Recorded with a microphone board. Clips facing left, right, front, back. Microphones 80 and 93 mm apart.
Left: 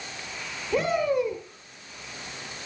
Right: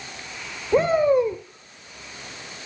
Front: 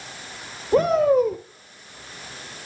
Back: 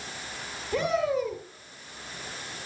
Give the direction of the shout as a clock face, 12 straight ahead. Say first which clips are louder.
Right 6 dB, front 9 dB; 1 o'clock.